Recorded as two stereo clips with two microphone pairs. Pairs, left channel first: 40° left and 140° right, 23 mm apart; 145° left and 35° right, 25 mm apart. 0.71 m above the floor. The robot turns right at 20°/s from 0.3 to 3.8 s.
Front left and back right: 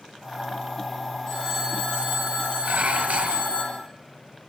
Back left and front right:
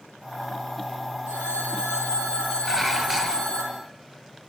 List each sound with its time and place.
1.3 s a phone ringing: 20° right, 9.5 m; by 3.6 s 30° left, 9.5 m
2.6 s dishes clattering: 125° right, 2.5 m; by 3.5 s 105° right, 2.5 m